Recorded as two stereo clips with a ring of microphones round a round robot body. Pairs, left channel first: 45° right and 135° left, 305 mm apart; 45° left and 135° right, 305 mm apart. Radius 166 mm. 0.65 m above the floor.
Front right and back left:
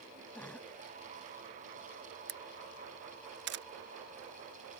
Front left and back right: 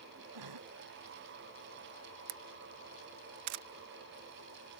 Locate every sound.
0.3 s a cough: 130° right
2.3 s a camera shutter: 170° right